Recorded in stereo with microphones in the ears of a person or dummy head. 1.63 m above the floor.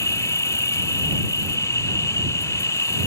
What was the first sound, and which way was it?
An insect, 10° left (ahead or behind).